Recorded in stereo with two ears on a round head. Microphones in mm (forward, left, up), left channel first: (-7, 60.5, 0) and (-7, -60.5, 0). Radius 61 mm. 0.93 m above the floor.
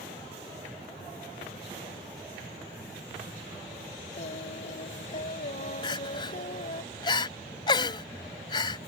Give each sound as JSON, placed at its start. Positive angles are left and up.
{"t": 4.2, "sound": "singing", "side_deg": 55}
{"t": 5.8, "sound": "crying", "side_deg": 35}